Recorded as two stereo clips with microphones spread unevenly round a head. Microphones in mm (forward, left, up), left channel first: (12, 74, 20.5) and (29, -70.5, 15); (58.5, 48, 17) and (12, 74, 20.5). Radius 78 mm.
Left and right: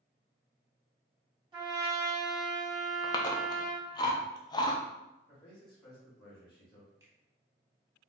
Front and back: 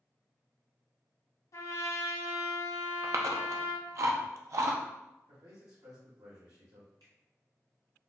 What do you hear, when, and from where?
1.5 s a trumpet: 20° right, 1.4 m
3.0 s chewing: 155° left, 0.6 m
5.3 s a man speaking: 160° left, 2 m
7.0 s a finger snap: 160° right, 0.9 m